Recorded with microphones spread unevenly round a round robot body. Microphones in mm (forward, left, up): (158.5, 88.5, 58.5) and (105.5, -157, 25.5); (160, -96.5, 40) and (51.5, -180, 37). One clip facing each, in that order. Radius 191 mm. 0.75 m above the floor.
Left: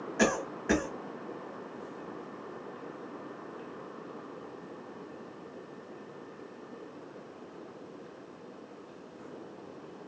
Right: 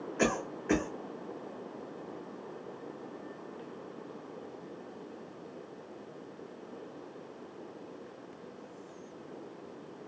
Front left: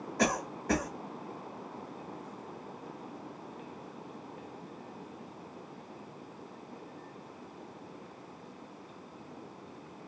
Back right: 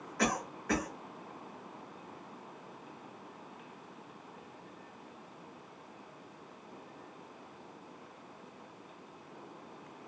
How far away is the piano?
No piano in this recording.